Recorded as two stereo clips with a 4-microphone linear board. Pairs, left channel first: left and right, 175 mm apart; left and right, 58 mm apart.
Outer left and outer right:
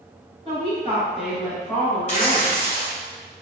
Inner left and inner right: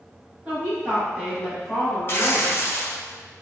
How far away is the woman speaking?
About 1.4 m.